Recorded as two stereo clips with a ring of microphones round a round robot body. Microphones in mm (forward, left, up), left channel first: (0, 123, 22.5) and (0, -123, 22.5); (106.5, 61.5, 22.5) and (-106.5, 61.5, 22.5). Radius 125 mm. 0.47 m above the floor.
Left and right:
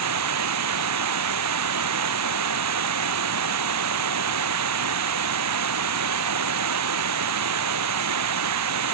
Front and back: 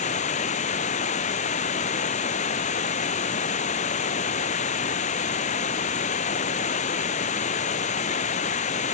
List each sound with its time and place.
0.0 s running water: 65° right